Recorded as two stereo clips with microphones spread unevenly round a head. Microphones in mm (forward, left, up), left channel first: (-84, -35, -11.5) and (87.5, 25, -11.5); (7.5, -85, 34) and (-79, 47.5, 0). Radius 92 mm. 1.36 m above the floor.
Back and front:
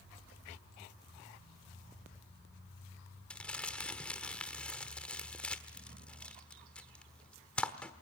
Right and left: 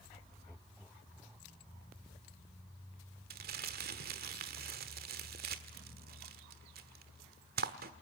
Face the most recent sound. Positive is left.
turn(degrees=120)